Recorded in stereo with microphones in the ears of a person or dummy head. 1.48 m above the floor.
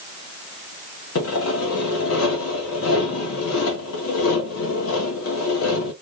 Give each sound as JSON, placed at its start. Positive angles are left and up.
{"t": 1.1, "sound": "sawing", "side_deg": 75, "distance_m": 1.7}